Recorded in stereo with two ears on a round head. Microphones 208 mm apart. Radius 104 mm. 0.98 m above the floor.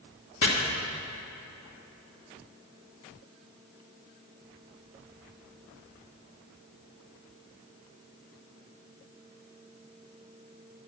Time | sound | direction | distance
0.4 | chopping | 55° left (ahead or behind) | 1.7 m